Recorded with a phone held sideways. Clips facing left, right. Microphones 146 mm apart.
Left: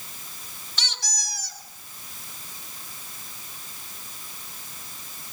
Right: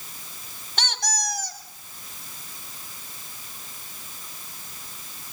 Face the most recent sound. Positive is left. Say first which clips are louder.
# right 9 dB
turn(degrees=-60)  # may be behind; listen again after turning